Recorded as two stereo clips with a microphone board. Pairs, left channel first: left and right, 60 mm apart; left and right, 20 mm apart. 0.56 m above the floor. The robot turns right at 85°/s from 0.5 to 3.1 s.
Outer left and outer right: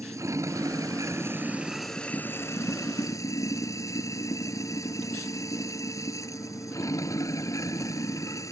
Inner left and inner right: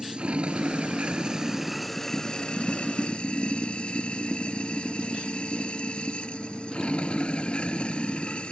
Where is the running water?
115° right; by 8.5 s 105° left.